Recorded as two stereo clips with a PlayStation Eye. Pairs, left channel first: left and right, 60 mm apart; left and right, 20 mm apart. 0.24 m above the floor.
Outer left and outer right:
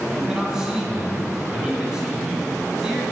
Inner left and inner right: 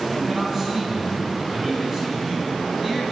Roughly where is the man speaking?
Centre.